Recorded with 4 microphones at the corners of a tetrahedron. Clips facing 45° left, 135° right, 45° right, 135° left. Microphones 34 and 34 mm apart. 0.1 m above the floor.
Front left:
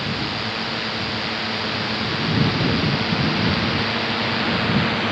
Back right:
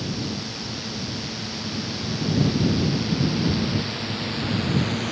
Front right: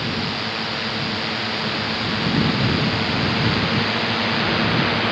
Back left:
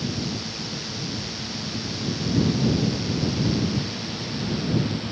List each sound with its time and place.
0.0 s a drone: straight ahead; by 5.1 s 10° right